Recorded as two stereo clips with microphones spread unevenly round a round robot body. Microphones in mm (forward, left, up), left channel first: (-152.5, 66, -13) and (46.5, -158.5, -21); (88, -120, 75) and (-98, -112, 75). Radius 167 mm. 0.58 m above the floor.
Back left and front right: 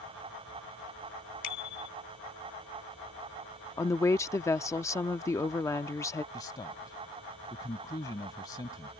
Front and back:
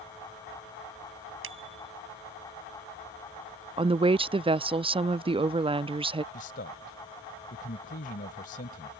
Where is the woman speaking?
155° right.